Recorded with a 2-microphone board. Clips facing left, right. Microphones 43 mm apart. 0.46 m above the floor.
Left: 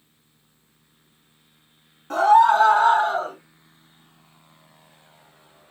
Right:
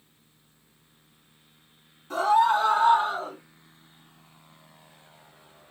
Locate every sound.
2.1 s a scream: 60° left (ahead or behind), 3 m; by 3.4 s 65° left (ahead or behind), 3 m